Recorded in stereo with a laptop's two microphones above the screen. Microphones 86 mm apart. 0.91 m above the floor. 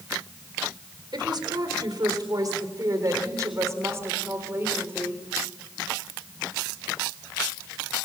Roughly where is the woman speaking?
Right.